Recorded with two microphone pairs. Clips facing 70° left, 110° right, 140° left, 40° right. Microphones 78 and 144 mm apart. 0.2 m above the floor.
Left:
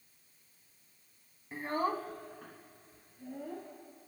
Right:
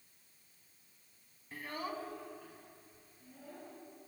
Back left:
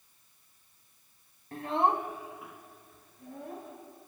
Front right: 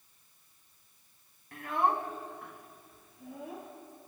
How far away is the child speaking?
About 1.1 m.